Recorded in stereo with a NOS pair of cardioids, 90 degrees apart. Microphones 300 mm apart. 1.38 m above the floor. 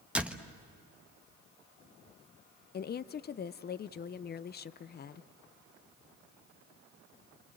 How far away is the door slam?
About 1.3 m.